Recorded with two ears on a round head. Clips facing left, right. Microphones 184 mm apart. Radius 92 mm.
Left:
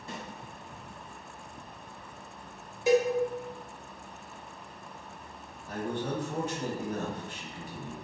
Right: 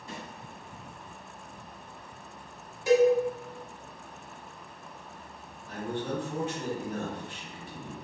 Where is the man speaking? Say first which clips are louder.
Even; 35° left (ahead or behind), 1.2 m.